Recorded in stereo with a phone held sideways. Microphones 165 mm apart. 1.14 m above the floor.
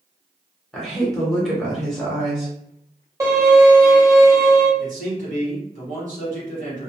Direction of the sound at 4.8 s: 50° right (ahead or behind).